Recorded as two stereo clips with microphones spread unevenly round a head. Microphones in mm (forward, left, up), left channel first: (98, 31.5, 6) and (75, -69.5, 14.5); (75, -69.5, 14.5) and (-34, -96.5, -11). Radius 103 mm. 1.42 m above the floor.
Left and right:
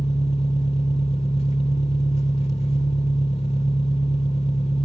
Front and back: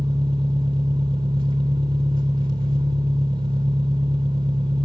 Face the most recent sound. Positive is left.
turn(degrees=125)